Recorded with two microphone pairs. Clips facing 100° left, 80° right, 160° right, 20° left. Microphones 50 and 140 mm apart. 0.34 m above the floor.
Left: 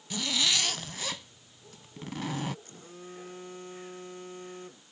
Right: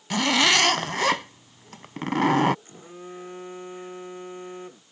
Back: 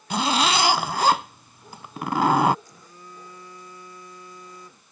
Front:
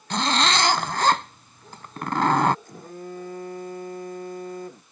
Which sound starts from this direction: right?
A zipper, at 0.1 s.